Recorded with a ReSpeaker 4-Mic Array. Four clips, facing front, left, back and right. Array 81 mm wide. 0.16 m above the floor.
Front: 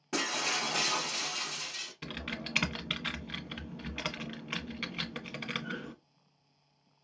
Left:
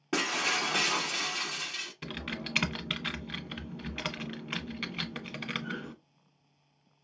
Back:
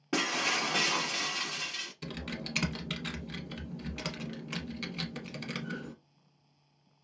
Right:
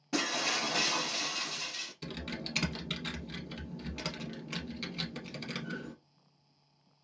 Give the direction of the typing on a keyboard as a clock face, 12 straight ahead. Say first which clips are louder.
Left 2 dB, even; 10 o'clock.